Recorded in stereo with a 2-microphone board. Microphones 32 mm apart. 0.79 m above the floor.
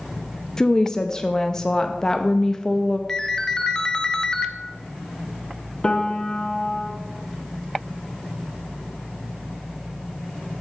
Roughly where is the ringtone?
Left.